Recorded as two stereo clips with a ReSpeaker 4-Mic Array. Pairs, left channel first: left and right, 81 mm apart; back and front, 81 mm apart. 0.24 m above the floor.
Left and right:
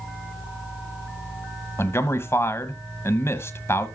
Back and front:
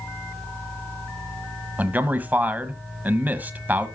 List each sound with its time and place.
1.8 s a man speaking: 55° left, 1.2 m